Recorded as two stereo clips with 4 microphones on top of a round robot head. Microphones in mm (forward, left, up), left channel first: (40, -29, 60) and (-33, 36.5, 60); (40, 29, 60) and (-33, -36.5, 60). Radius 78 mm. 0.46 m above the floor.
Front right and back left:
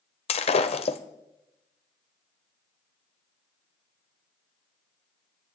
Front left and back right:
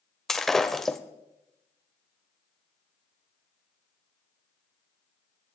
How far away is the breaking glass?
About 0.9 m.